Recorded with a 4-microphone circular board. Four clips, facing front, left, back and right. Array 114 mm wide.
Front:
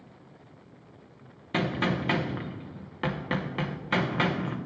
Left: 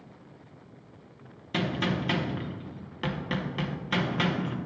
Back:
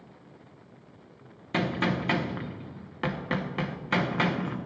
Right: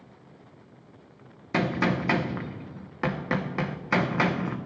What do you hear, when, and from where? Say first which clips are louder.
1.5 s a gunshot: right 4 dB, even; 95° right, 0.7 m